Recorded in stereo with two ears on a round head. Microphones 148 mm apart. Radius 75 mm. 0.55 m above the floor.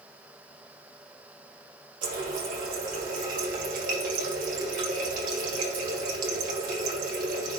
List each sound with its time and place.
2.0 s a running tap: 55° right (ahead or behind), 1.7 m